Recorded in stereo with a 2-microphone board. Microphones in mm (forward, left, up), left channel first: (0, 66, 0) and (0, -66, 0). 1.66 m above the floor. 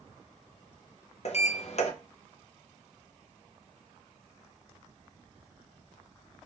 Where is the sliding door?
55° left (ahead or behind), 0.6 m.